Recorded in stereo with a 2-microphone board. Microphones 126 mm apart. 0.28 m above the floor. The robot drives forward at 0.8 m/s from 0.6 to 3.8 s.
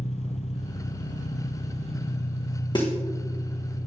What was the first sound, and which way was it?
An engine running, 65° left (ahead or behind).